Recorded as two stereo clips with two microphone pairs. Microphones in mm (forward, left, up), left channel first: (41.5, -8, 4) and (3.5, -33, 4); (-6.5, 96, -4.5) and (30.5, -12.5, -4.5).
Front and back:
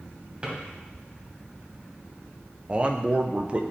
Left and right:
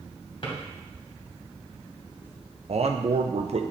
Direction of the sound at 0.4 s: 150° left.